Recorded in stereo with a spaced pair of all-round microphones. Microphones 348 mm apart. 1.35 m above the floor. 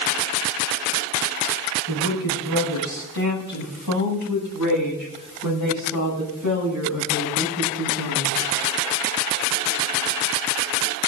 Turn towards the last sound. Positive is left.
turn(degrees=-55)  # may be behind; listen again after turning